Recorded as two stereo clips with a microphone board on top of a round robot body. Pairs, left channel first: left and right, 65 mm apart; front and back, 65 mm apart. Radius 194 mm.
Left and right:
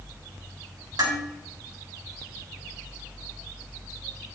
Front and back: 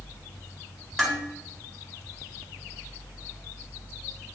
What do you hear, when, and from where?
1.0 s dishes clattering: 90° right, 3 m